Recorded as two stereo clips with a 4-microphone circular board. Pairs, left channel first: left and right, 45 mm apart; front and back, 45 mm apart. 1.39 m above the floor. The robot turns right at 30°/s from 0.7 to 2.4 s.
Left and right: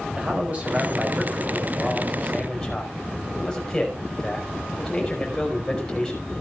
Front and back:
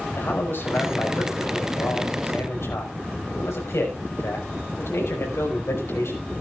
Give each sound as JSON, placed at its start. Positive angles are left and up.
{"t": 0.2, "sound": "a man speaking", "azimuth_deg": -40, "distance_m": 5.5}